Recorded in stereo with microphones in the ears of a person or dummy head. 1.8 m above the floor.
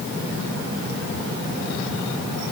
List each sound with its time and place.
Only background noise.